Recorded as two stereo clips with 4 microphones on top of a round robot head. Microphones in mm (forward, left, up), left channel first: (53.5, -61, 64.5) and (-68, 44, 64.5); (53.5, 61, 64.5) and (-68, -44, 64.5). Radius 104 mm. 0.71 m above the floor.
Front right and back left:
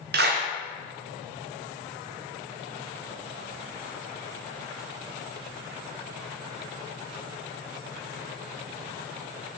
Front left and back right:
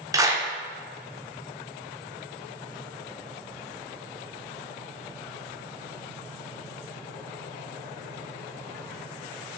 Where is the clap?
150° left, 1.5 m.